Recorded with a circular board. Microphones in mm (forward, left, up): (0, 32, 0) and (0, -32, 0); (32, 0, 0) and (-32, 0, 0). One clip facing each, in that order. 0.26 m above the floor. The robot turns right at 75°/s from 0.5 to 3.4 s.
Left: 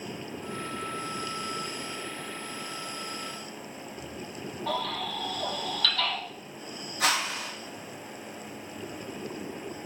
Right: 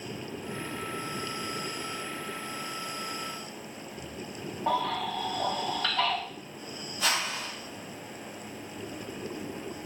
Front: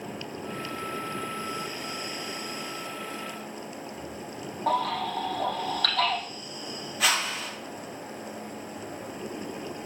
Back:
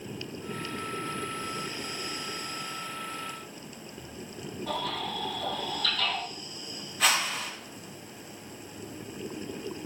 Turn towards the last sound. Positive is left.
turn(degrees=90)